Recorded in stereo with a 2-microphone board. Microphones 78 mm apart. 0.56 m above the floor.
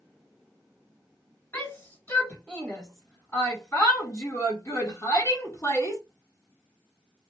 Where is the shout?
30° left (ahead or behind), 3 m; by 6.0 s 40° left (ahead or behind), 1.4 m.